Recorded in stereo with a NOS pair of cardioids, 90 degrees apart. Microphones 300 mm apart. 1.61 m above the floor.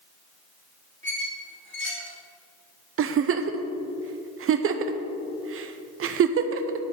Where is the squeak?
40° left, 2.5 m.